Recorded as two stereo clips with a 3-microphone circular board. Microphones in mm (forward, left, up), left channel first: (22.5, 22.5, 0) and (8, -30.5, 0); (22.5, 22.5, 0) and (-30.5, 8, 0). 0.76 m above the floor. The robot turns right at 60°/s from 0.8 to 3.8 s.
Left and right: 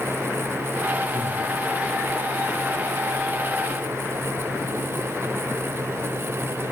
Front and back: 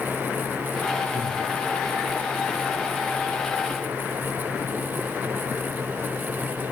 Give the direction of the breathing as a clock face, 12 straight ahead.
7 o'clock.